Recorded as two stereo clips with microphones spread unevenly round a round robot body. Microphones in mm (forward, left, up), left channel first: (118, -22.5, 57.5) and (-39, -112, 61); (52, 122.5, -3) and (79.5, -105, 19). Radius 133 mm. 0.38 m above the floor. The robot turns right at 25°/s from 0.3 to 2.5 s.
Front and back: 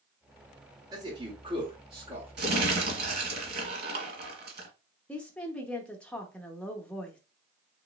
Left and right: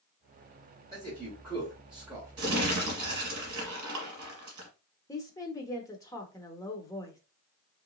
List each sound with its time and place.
0.9 s a man speaking: 160° left, 1.6 m; by 2.6 s 165° right, 1.6 m
2.4 s crumpling: 120° right, 1.6 m; by 4.7 s 115° right, 1.6 m
5.1 s a woman speaking: 100° left, 0.8 m